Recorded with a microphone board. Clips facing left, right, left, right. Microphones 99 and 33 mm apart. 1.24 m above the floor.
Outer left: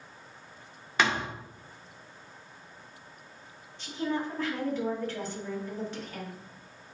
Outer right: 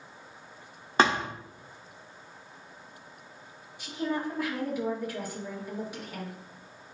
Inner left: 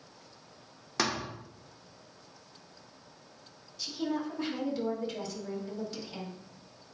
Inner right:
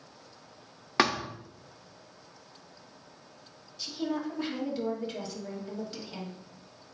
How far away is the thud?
About 1.0 m.